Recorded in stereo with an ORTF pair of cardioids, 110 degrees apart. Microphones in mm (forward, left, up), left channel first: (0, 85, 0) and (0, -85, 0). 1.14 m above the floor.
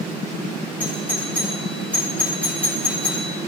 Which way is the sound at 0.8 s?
5° left.